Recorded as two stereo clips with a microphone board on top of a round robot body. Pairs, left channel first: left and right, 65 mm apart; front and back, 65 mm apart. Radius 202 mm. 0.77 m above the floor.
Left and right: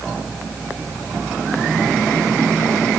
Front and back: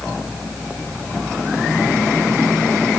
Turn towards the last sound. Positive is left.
No sound to turn to.